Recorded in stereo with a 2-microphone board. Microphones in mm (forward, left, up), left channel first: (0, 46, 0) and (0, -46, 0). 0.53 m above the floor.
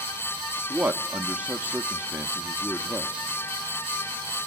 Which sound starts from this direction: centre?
A man speaking, at 0.7 s.